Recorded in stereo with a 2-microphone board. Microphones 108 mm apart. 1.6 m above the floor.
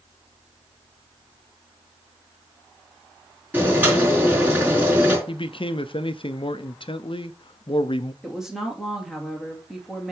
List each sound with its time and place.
3.5 s boiling: 15° right (ahead or behind), 4.5 m
5.3 s a man speaking: 55° left (ahead or behind), 0.5 m
8.2 s a woman speaking: 5° right (ahead or behind), 2.5 m